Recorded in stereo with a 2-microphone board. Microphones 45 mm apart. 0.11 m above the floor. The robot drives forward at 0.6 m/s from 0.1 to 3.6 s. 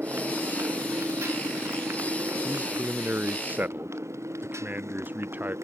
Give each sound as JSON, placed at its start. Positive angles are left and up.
{"t": 0.0, "sound": "a motorcycle", "side_deg": -45}
{"t": 2.4, "sound": "a man speaking", "side_deg": -40}